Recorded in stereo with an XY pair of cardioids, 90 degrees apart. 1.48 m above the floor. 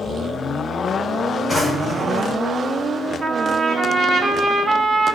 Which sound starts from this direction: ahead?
A drawer, at 1.5 s.